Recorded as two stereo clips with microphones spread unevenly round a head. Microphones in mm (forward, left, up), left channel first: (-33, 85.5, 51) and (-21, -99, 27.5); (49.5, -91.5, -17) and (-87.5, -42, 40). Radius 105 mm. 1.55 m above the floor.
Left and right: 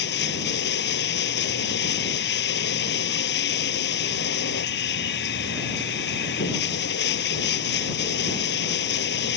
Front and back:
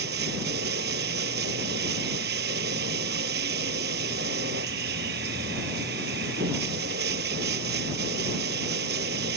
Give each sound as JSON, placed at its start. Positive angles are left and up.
{"t": 0.0, "sound": "running water", "azimuth_deg": 120}